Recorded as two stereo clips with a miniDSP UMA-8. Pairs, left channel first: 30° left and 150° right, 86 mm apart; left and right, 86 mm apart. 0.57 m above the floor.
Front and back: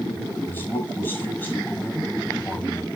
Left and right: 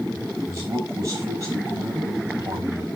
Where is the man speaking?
35° right, 5.5 m.